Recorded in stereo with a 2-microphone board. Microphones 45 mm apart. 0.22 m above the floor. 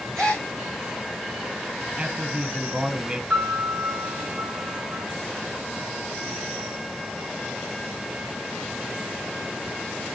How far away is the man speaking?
About 1.3 m.